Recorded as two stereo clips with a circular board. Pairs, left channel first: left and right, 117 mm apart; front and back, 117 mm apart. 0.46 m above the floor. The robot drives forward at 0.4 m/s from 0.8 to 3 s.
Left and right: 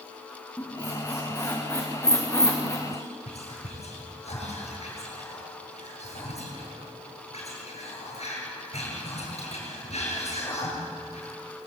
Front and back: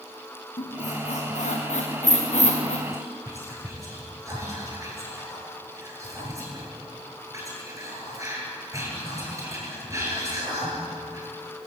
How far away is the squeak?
About 5 m.